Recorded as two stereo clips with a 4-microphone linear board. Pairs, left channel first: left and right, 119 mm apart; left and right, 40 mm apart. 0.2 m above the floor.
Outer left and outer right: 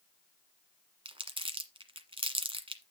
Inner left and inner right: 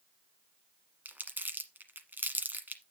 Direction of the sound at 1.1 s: 50° right (ahead or behind).